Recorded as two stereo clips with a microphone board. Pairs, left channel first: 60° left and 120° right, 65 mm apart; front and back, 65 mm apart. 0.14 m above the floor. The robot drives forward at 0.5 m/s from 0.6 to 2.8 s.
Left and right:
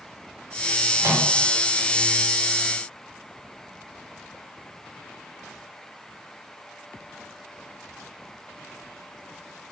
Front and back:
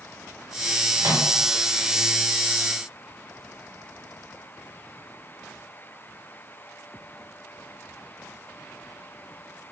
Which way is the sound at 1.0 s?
155° right.